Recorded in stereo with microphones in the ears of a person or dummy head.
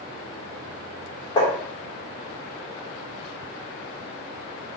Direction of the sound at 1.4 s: 35° left (ahead or behind).